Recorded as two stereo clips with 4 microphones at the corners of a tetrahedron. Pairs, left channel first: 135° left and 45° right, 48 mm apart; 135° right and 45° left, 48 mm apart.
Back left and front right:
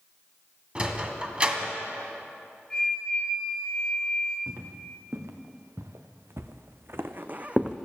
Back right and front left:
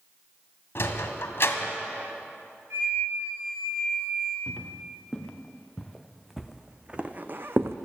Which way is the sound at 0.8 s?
105° right.